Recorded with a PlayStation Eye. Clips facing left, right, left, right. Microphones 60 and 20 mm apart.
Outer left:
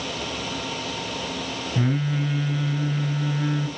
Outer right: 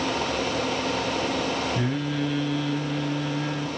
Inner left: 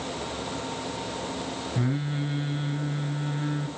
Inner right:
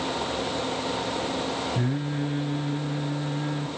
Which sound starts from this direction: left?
Singing, at 1.8 s.